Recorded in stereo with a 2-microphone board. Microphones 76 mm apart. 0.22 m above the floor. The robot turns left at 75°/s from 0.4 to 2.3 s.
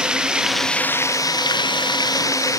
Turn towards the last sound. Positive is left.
turn(degrees=50)